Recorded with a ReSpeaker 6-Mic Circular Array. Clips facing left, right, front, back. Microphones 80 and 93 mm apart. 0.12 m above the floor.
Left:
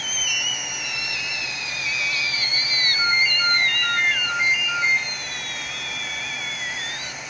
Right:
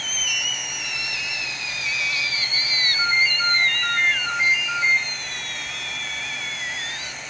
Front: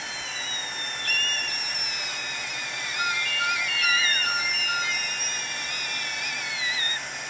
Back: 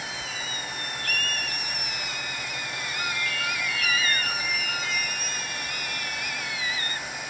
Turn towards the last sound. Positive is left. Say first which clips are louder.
# even, front 4 dB
turn(degrees=0)